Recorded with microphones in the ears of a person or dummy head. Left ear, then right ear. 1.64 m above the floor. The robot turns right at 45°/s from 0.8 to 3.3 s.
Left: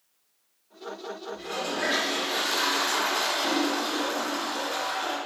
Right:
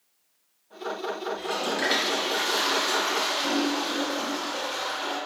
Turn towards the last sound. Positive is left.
turn(degrees=30)